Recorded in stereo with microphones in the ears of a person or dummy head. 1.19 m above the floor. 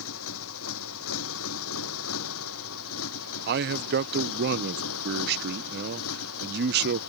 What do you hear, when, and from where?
0.0 s a motorcycle: 80° left; by 7.1 s 85° left
3.5 s a man speaking: 50° right (ahead or behind)